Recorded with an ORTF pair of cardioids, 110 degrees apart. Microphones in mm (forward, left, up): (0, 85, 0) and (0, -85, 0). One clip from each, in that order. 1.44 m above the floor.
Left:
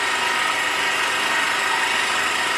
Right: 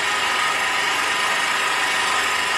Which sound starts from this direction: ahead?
An engine running, at 0.0 s.